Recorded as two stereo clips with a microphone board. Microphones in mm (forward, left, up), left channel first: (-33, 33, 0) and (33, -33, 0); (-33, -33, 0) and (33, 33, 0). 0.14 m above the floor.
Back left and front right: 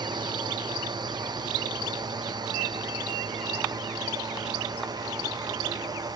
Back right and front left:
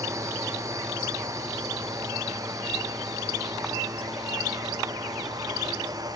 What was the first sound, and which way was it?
A drone, 10° right.